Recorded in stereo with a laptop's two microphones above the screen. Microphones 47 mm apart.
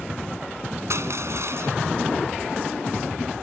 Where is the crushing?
70° right (ahead or behind).